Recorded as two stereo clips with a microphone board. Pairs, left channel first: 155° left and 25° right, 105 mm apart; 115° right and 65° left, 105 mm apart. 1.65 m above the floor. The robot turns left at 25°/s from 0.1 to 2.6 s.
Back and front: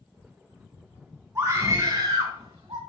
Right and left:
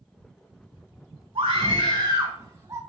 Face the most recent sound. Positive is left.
turn(degrees=10)